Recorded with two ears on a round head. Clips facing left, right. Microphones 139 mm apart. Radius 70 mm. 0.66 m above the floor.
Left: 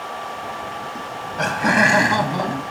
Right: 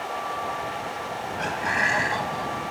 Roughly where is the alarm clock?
No alarm clock in this recording.